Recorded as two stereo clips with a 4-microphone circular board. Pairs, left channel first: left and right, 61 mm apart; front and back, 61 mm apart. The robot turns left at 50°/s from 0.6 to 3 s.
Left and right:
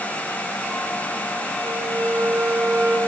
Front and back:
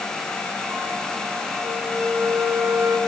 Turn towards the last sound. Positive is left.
turn(degrees=-155)